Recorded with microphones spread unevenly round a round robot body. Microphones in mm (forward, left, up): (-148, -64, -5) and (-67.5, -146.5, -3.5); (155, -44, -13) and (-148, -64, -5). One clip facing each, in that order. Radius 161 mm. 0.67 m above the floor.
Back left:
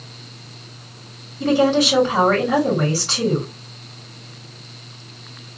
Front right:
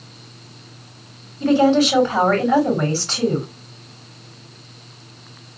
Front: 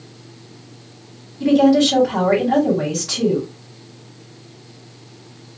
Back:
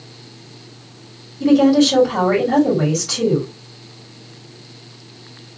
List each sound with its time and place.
1.4 s a woman speaking: 70° left, 3 m